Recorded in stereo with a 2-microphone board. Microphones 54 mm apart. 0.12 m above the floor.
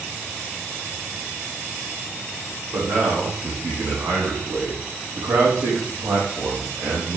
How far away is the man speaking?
About 7 m.